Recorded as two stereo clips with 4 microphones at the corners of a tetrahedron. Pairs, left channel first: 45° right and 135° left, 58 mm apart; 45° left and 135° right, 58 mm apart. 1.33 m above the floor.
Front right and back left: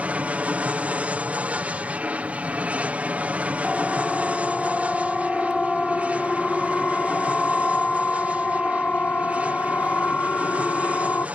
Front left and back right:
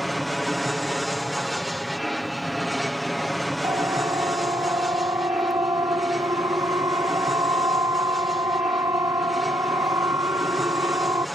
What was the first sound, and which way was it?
An aircraft, 135° left.